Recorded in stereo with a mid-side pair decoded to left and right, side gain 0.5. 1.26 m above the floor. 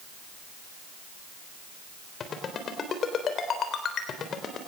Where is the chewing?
I don't hear chewing.